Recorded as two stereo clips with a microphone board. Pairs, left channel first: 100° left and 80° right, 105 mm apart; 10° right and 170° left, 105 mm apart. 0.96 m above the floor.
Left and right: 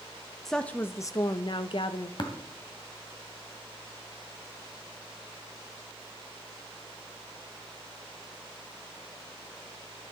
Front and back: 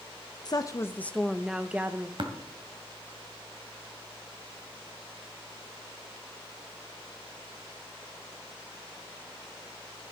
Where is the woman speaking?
15° left, 0.6 m; by 2.1 s 105° left, 0.9 m.